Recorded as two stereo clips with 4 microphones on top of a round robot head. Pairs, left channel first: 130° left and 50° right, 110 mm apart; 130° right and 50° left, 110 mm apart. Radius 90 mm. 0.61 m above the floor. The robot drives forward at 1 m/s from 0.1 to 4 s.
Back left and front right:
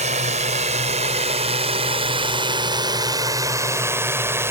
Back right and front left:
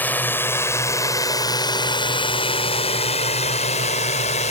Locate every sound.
0.0 s a drone: 55° right; by 4.5 s 120° right